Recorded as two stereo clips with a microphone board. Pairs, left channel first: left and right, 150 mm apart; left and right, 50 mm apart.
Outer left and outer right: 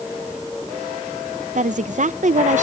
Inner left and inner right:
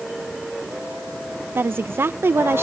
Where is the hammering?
No hammering in this recording.